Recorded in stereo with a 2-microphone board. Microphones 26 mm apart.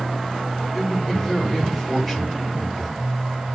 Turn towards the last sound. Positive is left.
turn(degrees=-15)  # may be behind; listen again after turning